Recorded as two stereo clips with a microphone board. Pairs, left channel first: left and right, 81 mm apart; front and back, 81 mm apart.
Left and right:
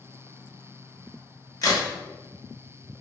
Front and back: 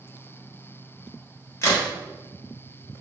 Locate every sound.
1.6 s a crack: 50° left, 1.0 m